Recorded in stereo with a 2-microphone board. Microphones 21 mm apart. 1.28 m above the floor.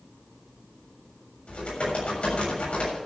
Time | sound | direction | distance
1.5 | typing on a keyboard | 75° left (ahead or behind) | 7 m